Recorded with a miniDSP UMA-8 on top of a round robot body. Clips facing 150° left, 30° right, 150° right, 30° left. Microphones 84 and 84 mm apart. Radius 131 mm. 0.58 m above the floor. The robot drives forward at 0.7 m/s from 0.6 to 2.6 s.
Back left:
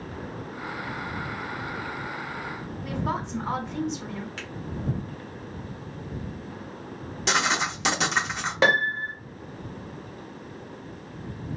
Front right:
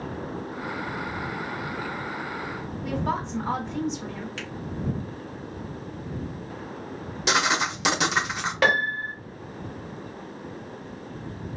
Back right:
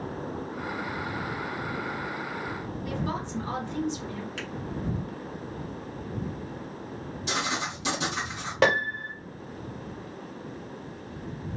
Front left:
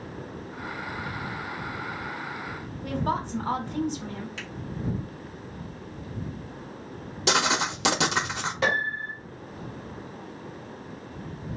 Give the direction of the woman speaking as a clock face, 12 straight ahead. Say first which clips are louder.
Front right 2 dB, front left 5 dB; 10 o'clock.